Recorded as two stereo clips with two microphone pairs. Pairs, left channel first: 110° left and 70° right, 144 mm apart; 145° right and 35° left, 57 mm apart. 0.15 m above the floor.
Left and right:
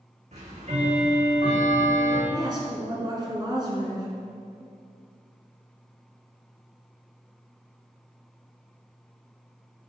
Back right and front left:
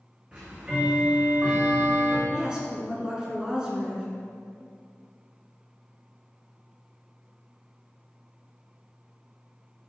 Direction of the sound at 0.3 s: 35° right.